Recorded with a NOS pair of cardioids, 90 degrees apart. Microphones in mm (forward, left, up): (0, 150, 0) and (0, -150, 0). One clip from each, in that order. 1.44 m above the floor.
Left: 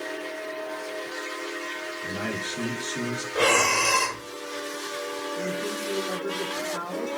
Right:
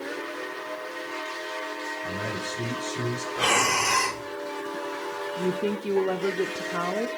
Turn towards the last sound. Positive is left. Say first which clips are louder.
# right 4 dB
turn(degrees=-40)